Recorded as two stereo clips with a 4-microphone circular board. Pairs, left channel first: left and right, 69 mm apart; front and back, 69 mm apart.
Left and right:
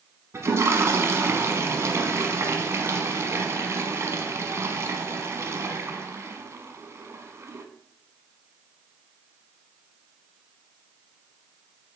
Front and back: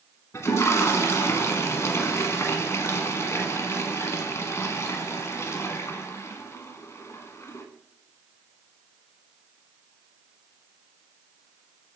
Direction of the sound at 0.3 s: 45° right.